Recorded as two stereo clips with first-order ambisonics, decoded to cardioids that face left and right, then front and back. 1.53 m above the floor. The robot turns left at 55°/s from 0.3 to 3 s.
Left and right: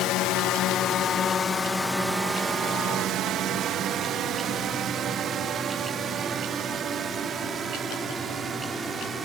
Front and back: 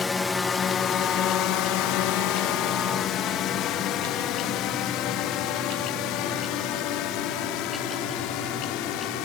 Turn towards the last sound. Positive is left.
turn(degrees=-20)